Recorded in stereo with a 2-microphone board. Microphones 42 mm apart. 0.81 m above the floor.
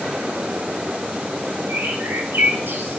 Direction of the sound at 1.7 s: 55° right (ahead or behind).